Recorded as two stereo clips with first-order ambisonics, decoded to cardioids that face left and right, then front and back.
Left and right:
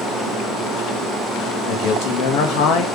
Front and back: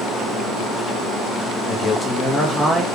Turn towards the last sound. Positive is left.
turn(degrees=90)